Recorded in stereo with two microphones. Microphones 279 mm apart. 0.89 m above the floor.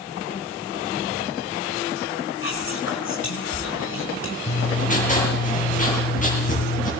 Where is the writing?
30° left (ahead or behind), 8.5 m.